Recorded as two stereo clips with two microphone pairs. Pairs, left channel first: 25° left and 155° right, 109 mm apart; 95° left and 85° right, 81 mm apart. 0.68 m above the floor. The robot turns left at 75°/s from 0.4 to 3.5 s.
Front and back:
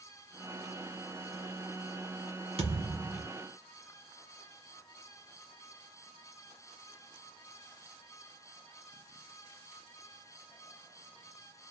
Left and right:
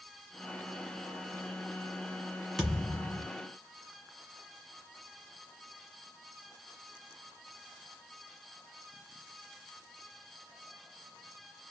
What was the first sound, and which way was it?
A thud, 175° right.